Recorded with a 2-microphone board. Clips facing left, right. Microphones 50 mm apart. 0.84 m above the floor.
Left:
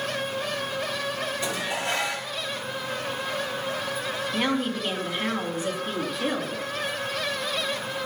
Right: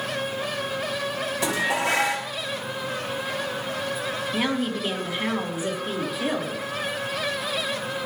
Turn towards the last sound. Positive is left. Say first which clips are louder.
# even
turn(degrees=-5)  # may be behind; listen again after turning